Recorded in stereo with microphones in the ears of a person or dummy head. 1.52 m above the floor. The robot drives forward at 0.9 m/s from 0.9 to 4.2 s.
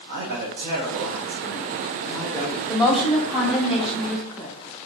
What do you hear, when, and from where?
0.1 s a man speaking: 50° right (ahead or behind), 0.8 m; by 2.6 s 15° right (ahead or behind), 2 m
2.7 s a woman speaking: centre (ahead or behind), 1.0 m